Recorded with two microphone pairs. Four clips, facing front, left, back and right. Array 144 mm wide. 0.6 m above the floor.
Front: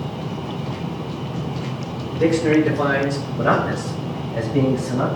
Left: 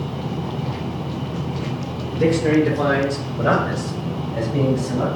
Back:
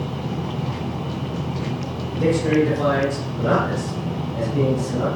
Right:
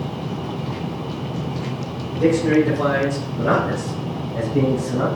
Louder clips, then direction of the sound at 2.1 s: Right 1 dB, front 2 dB; 50° left.